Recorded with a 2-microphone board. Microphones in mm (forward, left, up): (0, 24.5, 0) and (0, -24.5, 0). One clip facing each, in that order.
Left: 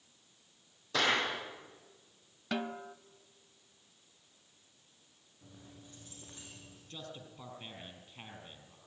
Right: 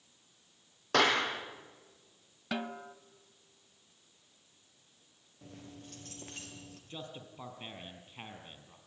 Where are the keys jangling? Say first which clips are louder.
Right 5 dB; 80° right, 4 m.